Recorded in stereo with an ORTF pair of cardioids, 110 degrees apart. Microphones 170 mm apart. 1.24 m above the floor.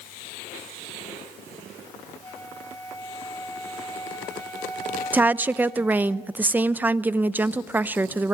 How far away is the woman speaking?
About 0.7 m.